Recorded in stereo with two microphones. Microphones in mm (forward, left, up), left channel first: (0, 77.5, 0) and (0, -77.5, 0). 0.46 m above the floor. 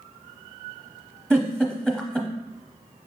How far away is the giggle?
About 0.8 m.